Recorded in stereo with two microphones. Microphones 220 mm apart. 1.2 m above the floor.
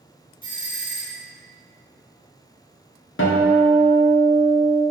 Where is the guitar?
65° left (ahead or behind), 0.5 m.